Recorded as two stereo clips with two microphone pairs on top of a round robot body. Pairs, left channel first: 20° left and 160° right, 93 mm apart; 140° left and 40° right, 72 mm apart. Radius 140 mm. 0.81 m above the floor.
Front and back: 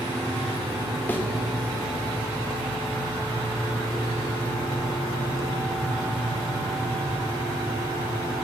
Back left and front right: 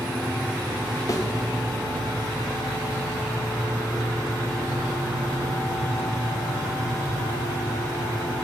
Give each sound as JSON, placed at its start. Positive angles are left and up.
{"t": 1.1, "sound": "a thud", "azimuth_deg": 95, "distance_m": 1.1}